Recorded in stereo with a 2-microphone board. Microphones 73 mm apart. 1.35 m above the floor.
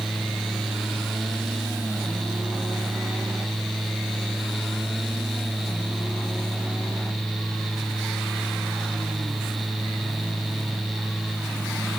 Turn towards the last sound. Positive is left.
No sound to turn to.